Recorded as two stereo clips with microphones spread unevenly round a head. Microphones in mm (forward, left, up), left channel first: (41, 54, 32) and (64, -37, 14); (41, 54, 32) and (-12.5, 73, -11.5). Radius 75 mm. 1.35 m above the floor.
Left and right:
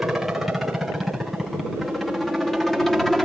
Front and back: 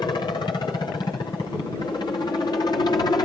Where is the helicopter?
Straight ahead; by 3.3 s 10° left.